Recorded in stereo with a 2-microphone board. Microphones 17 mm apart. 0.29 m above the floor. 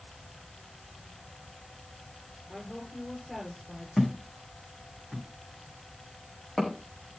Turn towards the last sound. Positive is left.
turn(degrees=55)  # may be behind; listen again after turning